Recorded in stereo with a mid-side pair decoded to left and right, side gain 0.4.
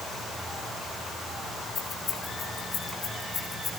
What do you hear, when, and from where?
1.8 s keys jangling: 50° left, 8.5 m; by 3.7 s 55° left, 8 m